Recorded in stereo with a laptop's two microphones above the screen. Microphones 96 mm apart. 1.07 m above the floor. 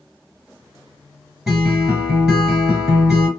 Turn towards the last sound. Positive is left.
turn(degrees=-5)  # may be behind; listen again after turning